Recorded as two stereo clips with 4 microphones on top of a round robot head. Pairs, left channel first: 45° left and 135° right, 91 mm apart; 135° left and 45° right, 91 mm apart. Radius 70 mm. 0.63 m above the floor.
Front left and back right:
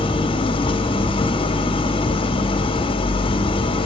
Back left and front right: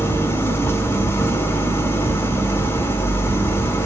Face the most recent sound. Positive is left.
turn(degrees=65)